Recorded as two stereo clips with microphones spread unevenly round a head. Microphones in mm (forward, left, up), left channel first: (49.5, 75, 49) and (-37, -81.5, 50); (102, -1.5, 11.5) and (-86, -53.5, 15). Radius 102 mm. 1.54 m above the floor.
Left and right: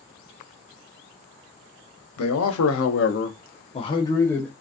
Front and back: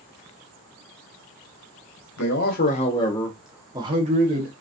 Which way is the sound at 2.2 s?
55° left.